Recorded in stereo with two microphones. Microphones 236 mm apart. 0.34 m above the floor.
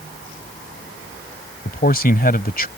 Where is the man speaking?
45° left (ahead or behind).